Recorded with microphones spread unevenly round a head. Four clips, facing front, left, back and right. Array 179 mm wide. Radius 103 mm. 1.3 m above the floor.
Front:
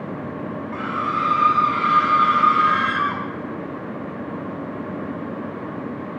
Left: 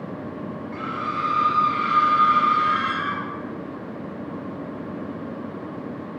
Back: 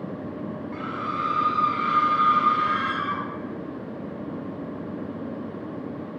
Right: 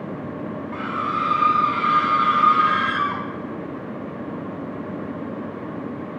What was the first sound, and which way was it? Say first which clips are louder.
A scream: right 3 dB, front 7 dB; 30° right.